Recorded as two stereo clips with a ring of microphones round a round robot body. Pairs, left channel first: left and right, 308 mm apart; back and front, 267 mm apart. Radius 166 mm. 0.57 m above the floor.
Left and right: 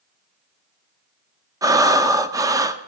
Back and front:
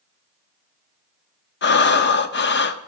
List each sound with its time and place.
1.6 s breathing: 165° right, 1.0 m